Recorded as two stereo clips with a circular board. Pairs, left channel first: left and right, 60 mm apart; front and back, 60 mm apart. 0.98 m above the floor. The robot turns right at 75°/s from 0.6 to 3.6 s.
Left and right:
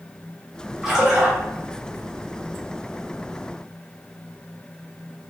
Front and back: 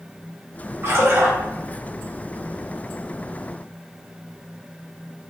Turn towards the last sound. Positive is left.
turn(degrees=30)